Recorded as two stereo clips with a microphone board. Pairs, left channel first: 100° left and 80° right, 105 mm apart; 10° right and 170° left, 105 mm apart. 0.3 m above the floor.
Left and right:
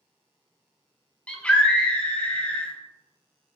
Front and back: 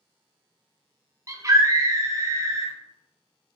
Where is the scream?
170° left, 1.4 m.